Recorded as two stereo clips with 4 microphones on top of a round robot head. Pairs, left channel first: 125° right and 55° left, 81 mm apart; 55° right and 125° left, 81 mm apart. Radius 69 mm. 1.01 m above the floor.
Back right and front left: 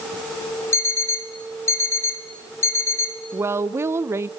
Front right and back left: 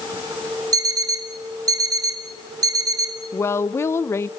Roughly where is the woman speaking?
Ahead.